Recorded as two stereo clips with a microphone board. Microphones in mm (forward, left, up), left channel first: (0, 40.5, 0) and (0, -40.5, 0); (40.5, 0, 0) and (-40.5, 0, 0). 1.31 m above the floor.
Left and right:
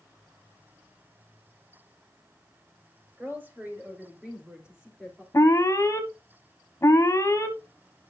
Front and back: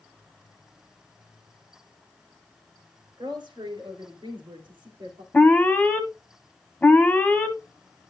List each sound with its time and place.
3.2 s a woman speaking: 155° right, 4 m; by 5.2 s straight behind, 3 m
5.3 s an alarm: 70° left, 1.4 m